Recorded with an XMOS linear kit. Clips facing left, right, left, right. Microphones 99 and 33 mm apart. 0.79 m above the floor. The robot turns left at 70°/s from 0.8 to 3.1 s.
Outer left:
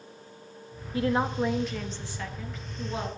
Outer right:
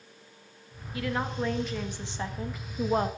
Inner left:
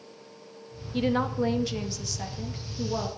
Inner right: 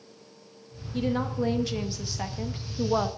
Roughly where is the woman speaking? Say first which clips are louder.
Outer left 5 dB, inner left 2 dB; ahead left.